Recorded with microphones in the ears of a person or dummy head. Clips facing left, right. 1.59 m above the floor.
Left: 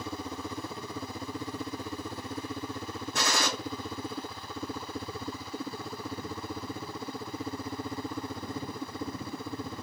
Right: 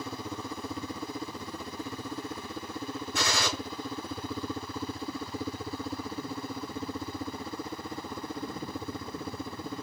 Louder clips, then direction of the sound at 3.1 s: Left 1 dB; 45° left (ahead or behind).